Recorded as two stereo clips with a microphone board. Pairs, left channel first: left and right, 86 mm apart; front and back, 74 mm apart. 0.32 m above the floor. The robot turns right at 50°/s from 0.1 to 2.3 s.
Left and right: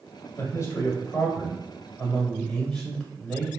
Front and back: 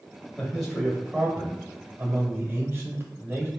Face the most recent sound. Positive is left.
turn(degrees=180)